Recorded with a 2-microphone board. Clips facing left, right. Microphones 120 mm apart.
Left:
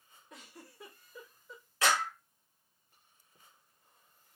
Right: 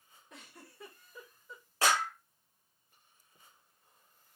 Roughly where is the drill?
I don't hear a drill.